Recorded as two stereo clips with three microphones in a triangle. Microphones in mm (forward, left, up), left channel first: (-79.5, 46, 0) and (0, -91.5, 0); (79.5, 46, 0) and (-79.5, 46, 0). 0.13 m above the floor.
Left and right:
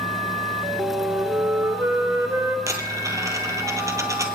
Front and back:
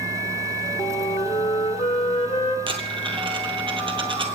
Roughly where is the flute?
Ahead.